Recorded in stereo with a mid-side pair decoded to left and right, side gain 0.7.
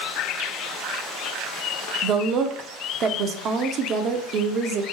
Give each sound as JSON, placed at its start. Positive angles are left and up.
{"t": 2.0, "sound": "a woman speaking", "azimuth_deg": -45, "distance_m": 0.5}